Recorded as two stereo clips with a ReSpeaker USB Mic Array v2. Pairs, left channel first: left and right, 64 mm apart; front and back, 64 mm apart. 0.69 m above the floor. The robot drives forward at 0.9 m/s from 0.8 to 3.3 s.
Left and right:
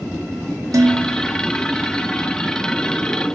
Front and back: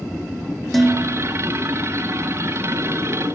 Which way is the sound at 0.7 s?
85° right.